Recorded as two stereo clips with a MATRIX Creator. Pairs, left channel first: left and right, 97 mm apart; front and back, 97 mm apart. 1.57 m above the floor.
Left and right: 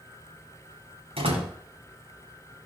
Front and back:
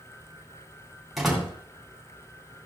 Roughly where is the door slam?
Right.